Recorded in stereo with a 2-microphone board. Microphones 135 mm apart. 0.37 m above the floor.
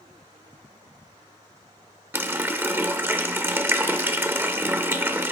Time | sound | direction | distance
2.1 | a running tap | 15° right (ahead or behind) | 0.5 m